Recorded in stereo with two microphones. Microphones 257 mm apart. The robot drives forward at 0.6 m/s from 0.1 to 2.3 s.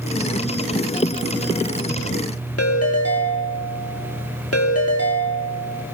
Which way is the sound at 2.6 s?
65° left (ahead or behind).